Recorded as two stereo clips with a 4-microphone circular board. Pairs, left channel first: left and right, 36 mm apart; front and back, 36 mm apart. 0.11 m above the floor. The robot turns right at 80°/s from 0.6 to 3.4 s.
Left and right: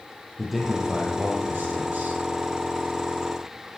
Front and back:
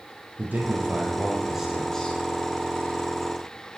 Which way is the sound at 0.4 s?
Straight behind.